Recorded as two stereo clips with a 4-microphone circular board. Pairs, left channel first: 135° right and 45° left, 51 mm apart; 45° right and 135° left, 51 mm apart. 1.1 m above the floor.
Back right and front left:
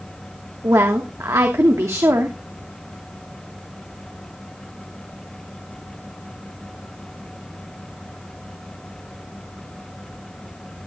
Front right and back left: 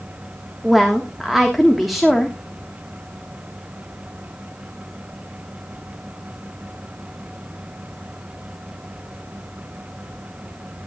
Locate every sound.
0.6 s a woman speaking: 45° left, 1.4 m